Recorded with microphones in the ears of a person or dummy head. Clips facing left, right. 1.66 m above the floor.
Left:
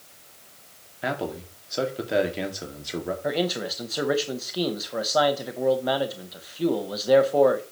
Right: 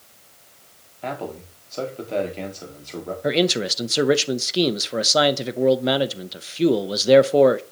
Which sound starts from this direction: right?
A man speaking, at 3.2 s.